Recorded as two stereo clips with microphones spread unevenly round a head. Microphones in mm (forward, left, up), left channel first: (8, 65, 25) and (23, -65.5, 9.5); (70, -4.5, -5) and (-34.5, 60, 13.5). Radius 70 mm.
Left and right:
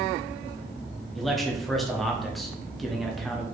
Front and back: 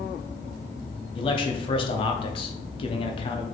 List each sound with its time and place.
1.1 s a man speaking: 10° left, 0.7 m